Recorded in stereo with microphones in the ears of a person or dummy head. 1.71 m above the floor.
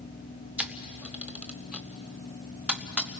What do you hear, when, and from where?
0.6 s a camera shutter: 10° right (ahead or behind), 0.8 m